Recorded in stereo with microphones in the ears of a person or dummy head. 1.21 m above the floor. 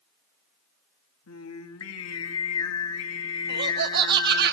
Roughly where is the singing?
Left.